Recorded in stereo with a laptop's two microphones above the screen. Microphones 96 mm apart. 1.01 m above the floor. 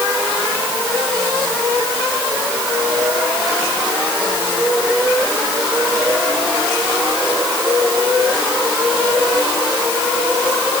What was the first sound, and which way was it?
Only background noise.